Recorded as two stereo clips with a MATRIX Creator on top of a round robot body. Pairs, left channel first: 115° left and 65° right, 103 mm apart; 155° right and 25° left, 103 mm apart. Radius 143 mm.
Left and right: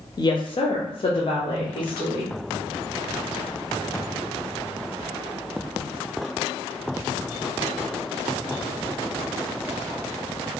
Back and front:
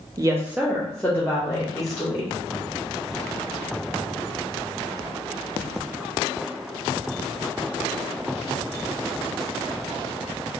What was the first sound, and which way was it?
A woman speaking, 70° left.